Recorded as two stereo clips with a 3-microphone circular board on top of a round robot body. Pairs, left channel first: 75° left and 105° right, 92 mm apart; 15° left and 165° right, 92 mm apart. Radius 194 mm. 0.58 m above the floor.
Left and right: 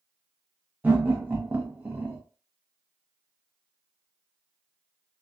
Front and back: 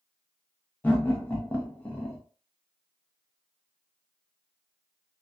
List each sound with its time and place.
0.8 s laughter: 45° right, 0.9 m